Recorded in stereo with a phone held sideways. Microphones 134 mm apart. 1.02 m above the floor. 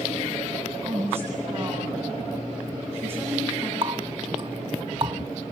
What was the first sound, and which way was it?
A woman speaking, 15° right (ahead or behind).